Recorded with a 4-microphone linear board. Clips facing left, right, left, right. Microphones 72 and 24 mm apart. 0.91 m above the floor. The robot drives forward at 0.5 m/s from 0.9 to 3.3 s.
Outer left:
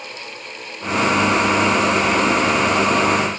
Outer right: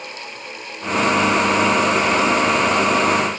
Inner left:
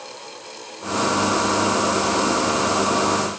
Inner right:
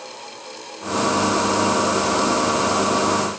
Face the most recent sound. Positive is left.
No sound to turn to.